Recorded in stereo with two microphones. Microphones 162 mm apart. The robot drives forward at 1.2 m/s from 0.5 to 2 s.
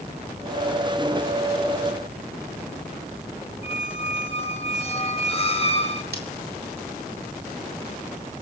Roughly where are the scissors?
Right.